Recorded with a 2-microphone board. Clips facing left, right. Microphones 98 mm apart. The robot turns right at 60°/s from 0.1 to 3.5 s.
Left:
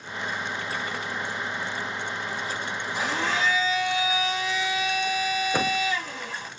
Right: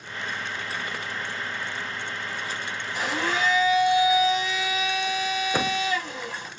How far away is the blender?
About 3.5 m.